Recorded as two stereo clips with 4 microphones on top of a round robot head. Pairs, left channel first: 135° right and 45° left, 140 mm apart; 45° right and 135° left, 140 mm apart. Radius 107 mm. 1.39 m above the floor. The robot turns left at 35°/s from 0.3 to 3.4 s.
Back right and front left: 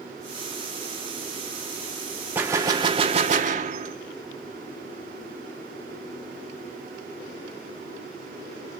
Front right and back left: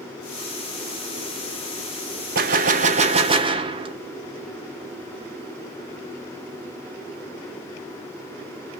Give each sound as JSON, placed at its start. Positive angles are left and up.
{"t": 2.4, "sound": "a gunshot", "azimuth_deg": 120, "distance_m": 0.6}